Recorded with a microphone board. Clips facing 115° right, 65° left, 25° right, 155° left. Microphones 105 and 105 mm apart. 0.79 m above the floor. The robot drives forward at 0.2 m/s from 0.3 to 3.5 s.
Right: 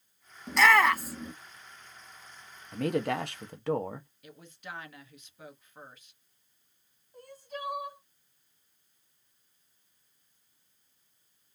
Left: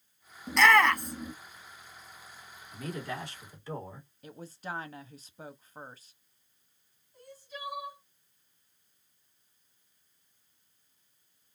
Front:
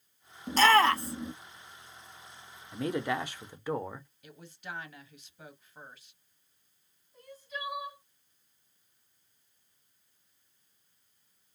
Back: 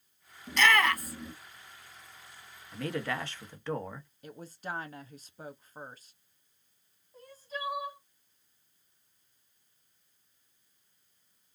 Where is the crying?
150° right, 1.4 m.